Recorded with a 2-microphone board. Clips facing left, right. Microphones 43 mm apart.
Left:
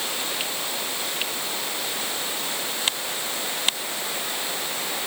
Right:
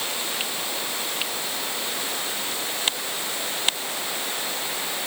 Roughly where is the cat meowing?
I don't hear a cat meowing.